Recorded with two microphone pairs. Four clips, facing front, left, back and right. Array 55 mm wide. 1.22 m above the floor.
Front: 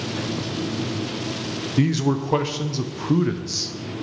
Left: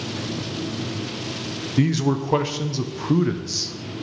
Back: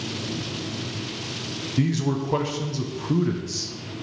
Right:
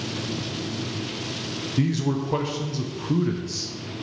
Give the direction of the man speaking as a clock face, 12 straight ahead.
11 o'clock.